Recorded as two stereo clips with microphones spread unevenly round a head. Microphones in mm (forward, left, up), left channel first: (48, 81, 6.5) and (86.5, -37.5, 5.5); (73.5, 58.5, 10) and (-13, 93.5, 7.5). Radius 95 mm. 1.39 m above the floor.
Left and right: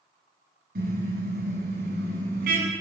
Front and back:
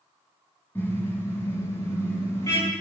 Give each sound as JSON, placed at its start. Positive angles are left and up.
{"t": 0.8, "sound": "a car horn", "azimuth_deg": -105, "distance_m": 7.0}